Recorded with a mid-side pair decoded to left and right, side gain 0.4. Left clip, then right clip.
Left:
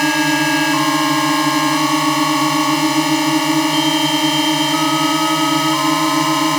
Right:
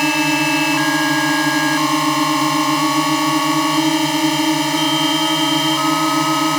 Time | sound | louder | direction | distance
0.0 | a drone | left 1 dB | 10° left | ?